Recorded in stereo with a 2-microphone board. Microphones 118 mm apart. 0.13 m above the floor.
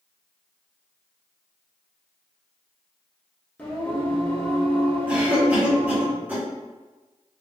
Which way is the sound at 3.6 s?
15° left (ahead or behind).